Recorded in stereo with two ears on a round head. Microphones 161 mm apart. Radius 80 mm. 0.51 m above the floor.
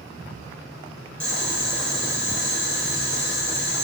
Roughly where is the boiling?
Centre.